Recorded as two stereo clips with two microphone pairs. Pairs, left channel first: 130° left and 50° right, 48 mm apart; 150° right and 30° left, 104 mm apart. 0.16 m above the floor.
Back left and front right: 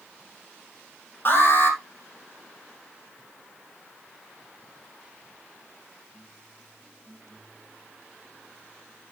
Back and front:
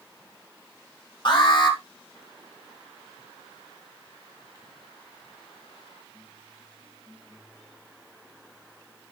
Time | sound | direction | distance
1.2 | an alarm | 170° left | 3.5 m